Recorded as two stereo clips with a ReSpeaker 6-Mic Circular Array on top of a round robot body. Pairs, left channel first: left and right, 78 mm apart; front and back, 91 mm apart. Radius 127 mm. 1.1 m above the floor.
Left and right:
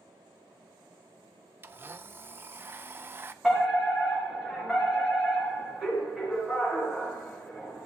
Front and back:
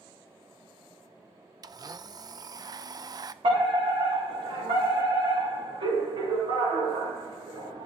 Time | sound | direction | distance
1.6 | a blender | 145° right | 0.6 m
3.4 | a fire alarm | 175° right | 4.5 m